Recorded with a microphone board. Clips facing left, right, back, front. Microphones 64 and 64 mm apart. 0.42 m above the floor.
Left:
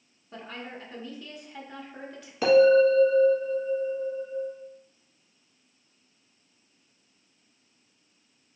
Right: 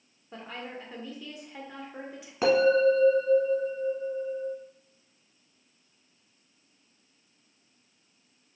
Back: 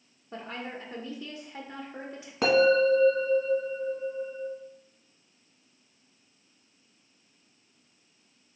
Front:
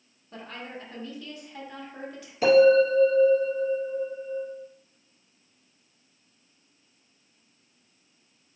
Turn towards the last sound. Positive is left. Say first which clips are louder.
# left 4 dB, front 4 dB
turn(degrees=-150)